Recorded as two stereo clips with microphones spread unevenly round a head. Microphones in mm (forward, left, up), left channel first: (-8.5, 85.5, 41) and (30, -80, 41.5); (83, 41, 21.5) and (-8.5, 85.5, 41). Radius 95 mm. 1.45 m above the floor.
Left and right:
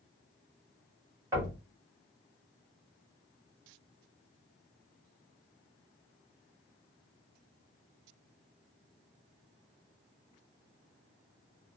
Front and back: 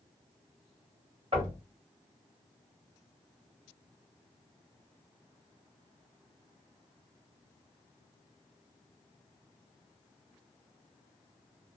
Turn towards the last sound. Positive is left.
turn(degrees=-150)